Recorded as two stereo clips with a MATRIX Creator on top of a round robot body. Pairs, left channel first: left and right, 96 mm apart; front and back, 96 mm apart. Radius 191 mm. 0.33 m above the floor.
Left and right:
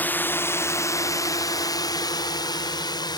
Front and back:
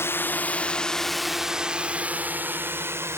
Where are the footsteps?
No footsteps in this recording.